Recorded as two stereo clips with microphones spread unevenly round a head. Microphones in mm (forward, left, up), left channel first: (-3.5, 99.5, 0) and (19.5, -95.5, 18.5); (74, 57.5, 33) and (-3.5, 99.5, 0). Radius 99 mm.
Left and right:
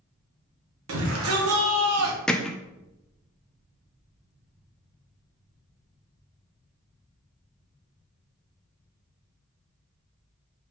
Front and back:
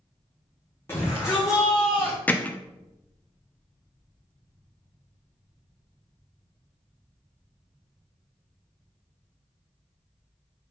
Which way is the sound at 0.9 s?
105° right.